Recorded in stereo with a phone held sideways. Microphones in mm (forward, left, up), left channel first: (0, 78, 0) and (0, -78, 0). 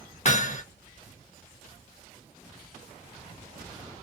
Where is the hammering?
50° left (ahead or behind), 0.7 m.